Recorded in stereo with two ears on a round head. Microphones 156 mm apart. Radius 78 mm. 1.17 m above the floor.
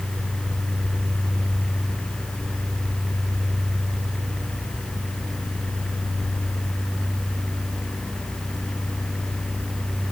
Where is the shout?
I don't hear a shout.